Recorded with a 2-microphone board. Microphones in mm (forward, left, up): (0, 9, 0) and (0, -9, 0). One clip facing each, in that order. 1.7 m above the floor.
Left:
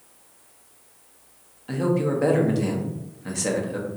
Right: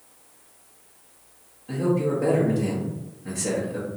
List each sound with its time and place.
1.7 s a man speaking: 45° left (ahead or behind), 0.6 m